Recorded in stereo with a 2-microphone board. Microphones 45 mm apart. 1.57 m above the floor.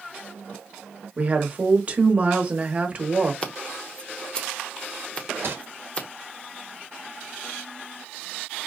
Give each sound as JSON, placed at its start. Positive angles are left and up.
{"t": 1.2, "sound": "a woman speaking", "side_deg": -30, "distance_m": 1.1}
{"t": 3.4, "sound": "scissors", "side_deg": 25, "distance_m": 0.9}
{"t": 5.4, "sound": "crumpling", "side_deg": -60, "distance_m": 1.3}